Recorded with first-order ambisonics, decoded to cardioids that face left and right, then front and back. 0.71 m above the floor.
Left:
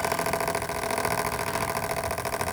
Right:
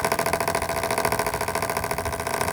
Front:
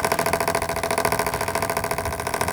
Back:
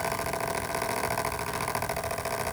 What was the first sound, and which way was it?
Only background noise.